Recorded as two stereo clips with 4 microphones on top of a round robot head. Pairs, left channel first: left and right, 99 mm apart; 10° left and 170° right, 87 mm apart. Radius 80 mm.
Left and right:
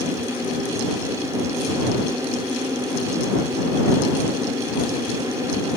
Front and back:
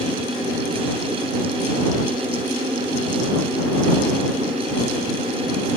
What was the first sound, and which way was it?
Only background noise.